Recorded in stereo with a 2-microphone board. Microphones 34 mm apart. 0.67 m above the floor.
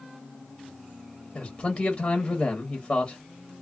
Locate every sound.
1.4 s a man speaking: 25° left (ahead or behind), 0.9 m